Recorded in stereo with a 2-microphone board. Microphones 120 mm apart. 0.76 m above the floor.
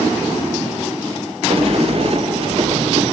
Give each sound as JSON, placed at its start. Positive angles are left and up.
{"t": 1.5, "sound": "a sliding door", "side_deg": -50, "distance_m": 0.6}